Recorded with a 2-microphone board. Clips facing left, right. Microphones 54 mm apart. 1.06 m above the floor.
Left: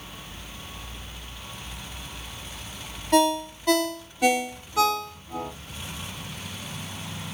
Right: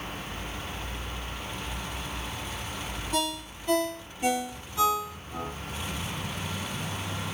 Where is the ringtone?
85° left, 1.4 m.